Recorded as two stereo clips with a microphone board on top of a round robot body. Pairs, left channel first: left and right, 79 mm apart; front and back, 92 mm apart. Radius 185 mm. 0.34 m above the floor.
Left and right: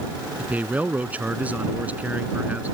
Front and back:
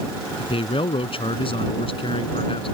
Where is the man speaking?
20° right.